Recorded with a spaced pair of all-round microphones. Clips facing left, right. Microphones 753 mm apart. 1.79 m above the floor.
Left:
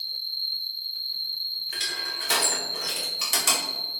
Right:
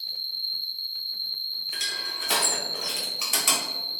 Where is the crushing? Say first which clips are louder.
Left 2 dB; 50° left (ahead or behind), 1.4 m.